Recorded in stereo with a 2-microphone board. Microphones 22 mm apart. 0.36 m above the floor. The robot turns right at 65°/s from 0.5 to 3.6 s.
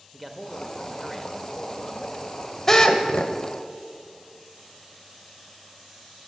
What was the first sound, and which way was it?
A man speaking, centre (ahead or behind).